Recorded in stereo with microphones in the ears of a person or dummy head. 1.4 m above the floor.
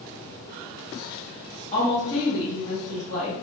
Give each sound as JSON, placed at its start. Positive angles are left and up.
{"t": 1.7, "sound": "a woman speaking", "side_deg": 35, "distance_m": 1.5}